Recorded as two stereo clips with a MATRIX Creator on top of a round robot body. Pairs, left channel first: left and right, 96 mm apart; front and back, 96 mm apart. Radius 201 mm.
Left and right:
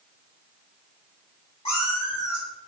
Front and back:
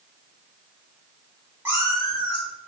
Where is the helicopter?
I don't hear a helicopter.